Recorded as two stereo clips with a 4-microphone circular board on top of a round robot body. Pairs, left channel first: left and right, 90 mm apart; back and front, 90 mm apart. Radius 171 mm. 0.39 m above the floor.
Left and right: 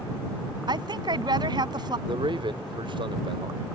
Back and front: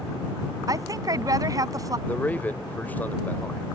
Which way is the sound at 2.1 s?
110° right.